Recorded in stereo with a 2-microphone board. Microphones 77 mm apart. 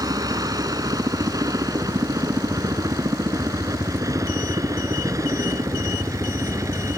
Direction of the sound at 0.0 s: 55° right (ahead or behind).